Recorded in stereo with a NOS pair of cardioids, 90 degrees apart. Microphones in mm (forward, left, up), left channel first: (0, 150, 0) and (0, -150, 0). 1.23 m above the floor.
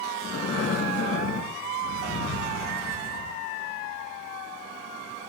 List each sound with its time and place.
0.2 s breathing: 45° left, 5.5 m